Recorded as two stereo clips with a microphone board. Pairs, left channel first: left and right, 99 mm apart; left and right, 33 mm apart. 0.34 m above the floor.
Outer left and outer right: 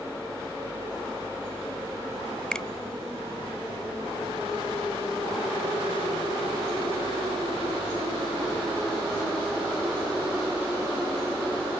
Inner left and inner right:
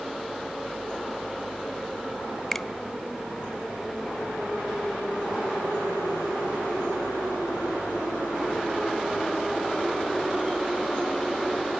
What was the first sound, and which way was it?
A finger snap, 10° left (ahead or behind).